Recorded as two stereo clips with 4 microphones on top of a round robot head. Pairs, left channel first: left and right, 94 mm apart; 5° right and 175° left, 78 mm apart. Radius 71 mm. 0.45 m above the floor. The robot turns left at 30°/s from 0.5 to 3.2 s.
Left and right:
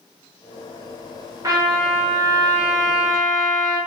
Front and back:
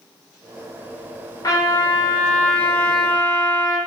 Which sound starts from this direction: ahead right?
A trumpet, at 1.4 s.